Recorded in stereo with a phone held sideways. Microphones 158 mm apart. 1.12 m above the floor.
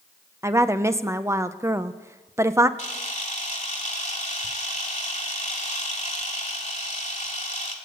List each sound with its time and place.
0.4 s a woman speaking: 20° right (ahead or behind), 0.6 m
2.8 s a camera shutter: 45° left (ahead or behind), 2 m